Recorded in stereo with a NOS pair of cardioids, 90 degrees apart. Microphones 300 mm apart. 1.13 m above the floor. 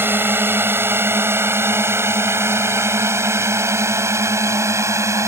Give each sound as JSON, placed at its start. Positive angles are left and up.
{"t": 0.0, "sound": "a drone", "azimuth_deg": -5}